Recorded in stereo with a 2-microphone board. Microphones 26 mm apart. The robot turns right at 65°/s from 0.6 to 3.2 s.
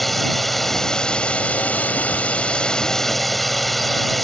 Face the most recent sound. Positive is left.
turn(degrees=175)